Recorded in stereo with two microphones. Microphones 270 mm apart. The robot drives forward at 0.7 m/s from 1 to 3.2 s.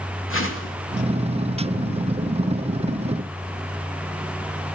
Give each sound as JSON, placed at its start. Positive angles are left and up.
{"t": 0.3, "sound": "a whoosh", "side_deg": 50, "distance_m": 2.5}